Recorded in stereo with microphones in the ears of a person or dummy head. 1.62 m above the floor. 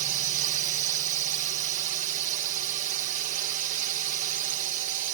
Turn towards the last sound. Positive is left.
turn(degrees=-45)  # may be behind; listen again after turning